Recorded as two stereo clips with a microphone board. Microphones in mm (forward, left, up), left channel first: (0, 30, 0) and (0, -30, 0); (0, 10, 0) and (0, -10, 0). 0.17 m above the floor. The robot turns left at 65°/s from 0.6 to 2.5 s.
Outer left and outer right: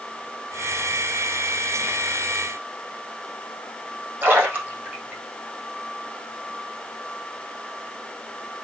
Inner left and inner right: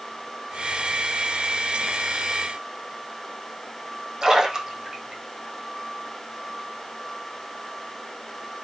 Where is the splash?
35° right (ahead or behind), 6.5 m.